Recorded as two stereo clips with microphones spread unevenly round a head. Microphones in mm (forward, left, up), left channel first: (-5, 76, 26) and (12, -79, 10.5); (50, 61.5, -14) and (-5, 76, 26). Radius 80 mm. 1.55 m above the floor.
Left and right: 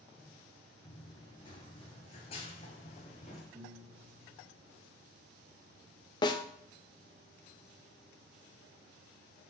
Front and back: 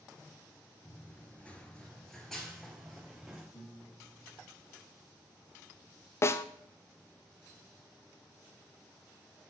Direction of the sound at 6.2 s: 50° left.